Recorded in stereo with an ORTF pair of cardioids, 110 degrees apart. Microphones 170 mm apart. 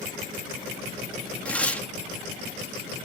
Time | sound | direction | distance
1.4 | tearing paper | 5° left | 1.5 m